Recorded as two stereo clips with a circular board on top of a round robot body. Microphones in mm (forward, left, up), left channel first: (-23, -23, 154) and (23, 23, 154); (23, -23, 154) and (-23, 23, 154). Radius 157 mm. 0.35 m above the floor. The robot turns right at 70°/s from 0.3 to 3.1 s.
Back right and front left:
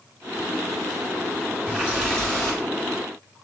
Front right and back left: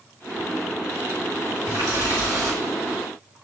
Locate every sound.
1.7 s a running tap: 105° left, 4 m; by 2.6 s 170° left, 4 m